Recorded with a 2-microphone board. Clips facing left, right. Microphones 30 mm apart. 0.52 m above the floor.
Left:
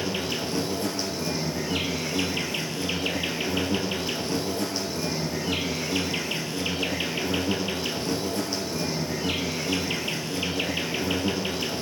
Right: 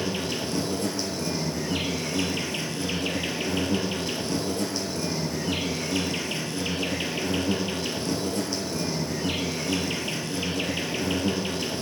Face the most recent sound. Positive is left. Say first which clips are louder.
# even
turn(degrees=15)  # may be behind; listen again after turning